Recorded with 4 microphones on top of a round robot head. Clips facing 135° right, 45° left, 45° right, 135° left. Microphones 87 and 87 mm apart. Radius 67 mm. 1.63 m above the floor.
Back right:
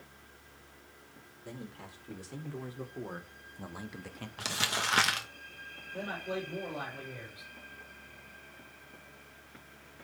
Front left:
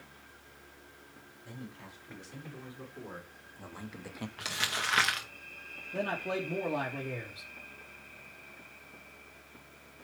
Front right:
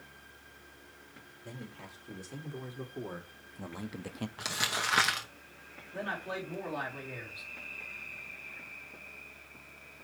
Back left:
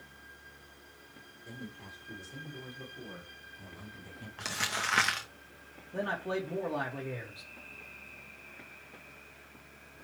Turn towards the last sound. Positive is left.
turn(degrees=75)